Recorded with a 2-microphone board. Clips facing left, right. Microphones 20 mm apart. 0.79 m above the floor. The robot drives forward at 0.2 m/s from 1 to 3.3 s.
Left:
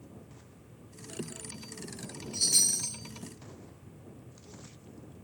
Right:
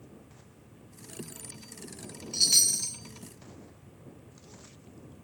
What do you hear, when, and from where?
2.3 s a chime: 65° right (ahead or behind), 0.5 m; by 3.0 s 55° right (ahead or behind), 0.6 m